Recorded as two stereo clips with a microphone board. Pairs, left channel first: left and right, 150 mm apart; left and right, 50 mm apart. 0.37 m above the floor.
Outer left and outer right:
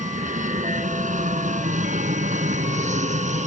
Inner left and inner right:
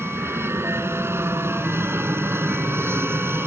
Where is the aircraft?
65° right (ahead or behind); by 3.5 s 60° right (ahead or behind).